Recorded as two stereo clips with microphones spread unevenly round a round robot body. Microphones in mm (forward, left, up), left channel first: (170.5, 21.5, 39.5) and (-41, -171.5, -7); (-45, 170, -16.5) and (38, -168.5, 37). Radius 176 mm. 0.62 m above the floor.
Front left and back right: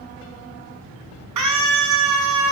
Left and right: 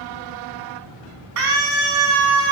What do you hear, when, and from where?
1.4 s a scream: 120° right, 4.5 m; by 2.5 s 115° right, 5.5 m